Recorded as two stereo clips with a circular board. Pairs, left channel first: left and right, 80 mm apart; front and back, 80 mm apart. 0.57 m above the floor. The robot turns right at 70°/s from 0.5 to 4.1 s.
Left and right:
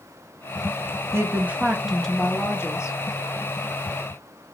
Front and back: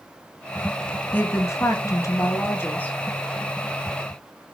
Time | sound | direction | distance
1.1 | a woman speaking | 55° right | 0.7 m